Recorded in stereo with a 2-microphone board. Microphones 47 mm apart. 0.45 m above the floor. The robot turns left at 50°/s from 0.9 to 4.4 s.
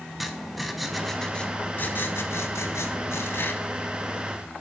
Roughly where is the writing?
Behind.